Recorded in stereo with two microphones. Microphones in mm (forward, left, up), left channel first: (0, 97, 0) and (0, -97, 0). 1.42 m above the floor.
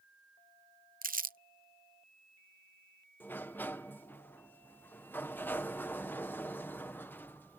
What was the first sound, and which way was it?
Crumpling, 45° right (ahead or behind).